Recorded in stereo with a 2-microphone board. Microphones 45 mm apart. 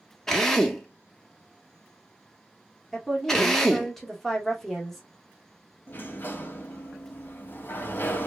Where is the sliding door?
45° left (ahead or behind), 0.7 m.